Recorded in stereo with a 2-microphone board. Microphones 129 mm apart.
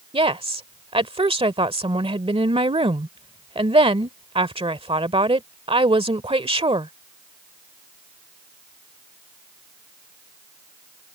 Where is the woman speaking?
45° right (ahead or behind).